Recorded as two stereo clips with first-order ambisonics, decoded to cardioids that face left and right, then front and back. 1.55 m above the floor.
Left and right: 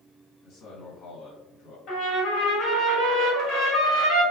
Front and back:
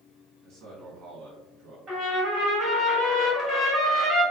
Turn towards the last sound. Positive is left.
turn(degrees=115)